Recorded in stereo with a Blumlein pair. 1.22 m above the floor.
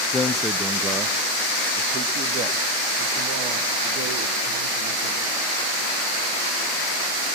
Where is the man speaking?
5° left, 0.5 m; by 5.3 s 40° right, 3 m.